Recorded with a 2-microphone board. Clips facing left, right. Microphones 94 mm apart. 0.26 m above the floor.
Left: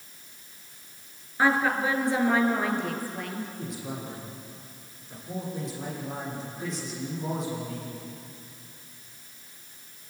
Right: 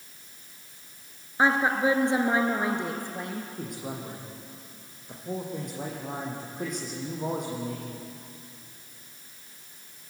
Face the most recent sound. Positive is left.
turn(degrees=-50)  # may be behind; listen again after turning